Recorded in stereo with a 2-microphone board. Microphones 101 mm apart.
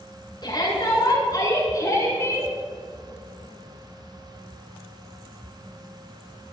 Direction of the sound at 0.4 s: 45° left (ahead or behind).